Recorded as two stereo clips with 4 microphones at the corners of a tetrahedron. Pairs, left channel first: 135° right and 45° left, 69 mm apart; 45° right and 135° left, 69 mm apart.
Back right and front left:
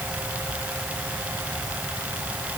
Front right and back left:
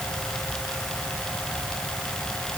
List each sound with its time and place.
Only background noise.